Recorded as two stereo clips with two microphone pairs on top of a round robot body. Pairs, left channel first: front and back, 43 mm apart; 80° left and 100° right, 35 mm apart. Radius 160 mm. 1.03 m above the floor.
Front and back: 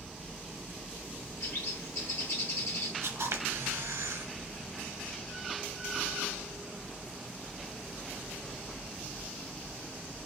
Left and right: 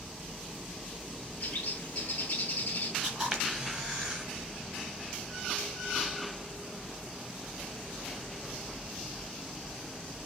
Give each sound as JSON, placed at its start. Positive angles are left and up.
{"t": 1.4, "sound": "a bird", "azimuth_deg": 10, "distance_m": 0.9}
{"t": 3.0, "sound": "a camera shutter", "azimuth_deg": -160, "distance_m": 2.5}